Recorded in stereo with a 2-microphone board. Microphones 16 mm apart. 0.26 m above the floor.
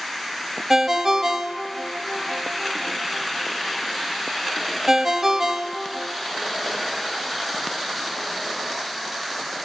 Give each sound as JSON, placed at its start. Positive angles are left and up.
{"t": 0.7, "sound": "a ringtone", "side_deg": -35, "distance_m": 0.5}